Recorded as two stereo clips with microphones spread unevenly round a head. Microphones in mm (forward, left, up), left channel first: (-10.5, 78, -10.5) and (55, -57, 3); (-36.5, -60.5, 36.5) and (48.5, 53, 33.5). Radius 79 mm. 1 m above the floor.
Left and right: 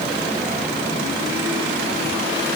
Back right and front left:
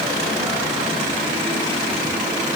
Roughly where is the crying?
No crying in this recording.